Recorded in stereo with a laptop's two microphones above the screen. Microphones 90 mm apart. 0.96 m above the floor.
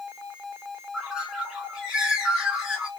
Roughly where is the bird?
Centre.